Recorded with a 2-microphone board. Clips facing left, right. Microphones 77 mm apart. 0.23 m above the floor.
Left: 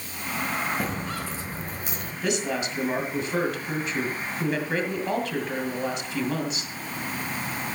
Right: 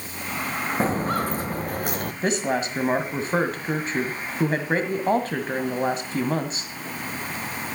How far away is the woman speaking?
About 1.7 m.